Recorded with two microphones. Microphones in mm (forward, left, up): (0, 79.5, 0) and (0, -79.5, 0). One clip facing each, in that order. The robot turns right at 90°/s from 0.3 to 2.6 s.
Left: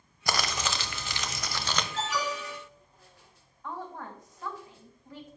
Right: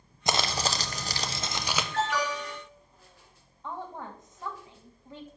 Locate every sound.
0.3 s crumpling: 145° right, 0.7 m; by 1.8 s 5° right, 0.7 m
1.9 s an alarm: 100° right, 5 m; by 2.6 s 45° right, 5 m
3.6 s a woman speaking: 20° right (ahead or behind), 1.7 m